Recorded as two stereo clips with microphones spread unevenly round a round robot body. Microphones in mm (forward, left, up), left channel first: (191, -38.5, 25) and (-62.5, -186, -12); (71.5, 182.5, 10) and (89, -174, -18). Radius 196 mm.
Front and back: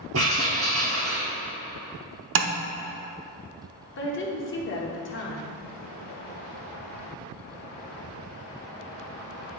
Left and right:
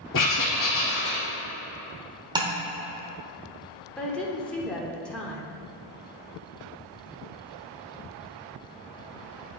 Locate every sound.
0.1 s writing: 155° left, 1.8 m
2.4 s tapping: 160° right, 0.6 m
4.0 s a woman speaking: straight ahead, 1.0 m